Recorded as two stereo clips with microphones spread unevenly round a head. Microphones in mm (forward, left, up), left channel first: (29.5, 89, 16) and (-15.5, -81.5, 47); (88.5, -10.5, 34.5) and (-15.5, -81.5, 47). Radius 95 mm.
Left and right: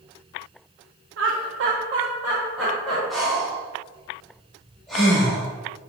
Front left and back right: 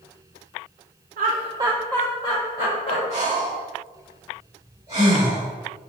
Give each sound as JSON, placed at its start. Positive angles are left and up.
{"t": 1.2, "sound": "laughter", "azimuth_deg": -135, "distance_m": 0.6}
{"t": 3.1, "sound": "breathing", "azimuth_deg": 180, "distance_m": 1.1}